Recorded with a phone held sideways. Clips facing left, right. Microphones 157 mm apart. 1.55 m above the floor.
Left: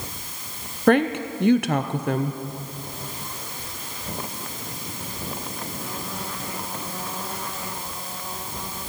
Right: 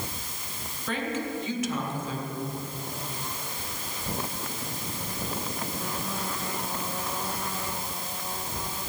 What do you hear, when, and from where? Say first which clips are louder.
0.9 s a woman speaking: left 12 dB; 65° left (ahead or behind), 0.6 m